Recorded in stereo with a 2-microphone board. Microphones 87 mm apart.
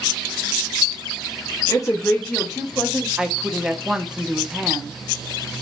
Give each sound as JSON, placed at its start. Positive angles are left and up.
{"t": 1.7, "sound": "a woman speaking", "side_deg": 45, "distance_m": 1.1}
{"t": 3.2, "sound": "a woman speaking", "side_deg": -10, "distance_m": 0.7}